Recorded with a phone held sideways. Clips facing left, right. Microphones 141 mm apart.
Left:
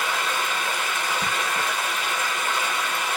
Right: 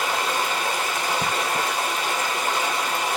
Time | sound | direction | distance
0.0 | running water | 35° right (ahead or behind) | 1.3 m